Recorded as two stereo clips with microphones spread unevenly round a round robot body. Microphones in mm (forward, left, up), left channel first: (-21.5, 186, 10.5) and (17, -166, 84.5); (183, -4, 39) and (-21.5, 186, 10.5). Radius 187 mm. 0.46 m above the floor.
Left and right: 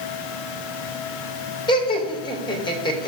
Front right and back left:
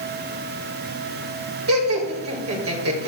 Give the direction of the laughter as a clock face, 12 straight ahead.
7 o'clock.